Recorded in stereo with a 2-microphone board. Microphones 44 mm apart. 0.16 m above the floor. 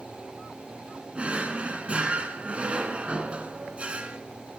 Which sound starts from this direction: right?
A drawer, at 1.1 s.